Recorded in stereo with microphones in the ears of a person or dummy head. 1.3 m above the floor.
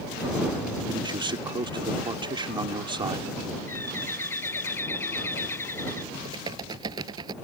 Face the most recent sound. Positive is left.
turn(degrees=-20)  # may be behind; listen again after turning